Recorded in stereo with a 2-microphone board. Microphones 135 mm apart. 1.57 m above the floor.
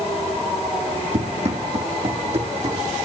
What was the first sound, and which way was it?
Running footsteps, 50° right (ahead or behind).